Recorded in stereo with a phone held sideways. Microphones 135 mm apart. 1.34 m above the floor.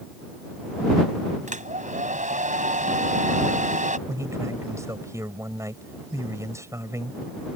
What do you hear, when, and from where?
1.5 s a hair dryer: 70° right (ahead or behind)
4.1 s a man speaking: 20° right (ahead or behind)